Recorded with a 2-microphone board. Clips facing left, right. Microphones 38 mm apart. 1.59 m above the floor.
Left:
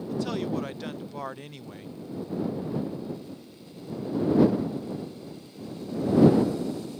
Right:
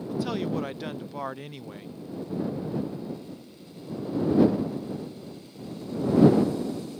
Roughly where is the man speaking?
Centre.